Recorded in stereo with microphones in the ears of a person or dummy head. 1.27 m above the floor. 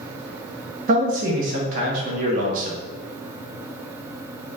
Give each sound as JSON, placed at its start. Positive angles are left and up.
{"t": 0.9, "sound": "a man speaking", "side_deg": -45, "distance_m": 0.8}